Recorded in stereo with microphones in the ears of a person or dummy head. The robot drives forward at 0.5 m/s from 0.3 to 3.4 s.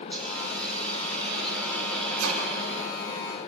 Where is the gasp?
No gasp in this recording.